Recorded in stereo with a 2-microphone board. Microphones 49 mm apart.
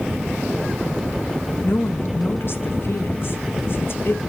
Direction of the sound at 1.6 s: 50° left (ahead or behind).